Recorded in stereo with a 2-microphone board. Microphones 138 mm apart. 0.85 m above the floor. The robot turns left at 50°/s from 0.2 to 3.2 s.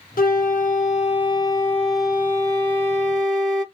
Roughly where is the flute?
Left.